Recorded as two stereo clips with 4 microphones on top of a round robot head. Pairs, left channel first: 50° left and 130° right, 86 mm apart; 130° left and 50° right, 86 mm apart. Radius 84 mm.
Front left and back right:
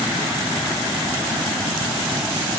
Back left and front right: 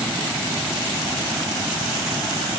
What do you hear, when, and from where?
Only background noise.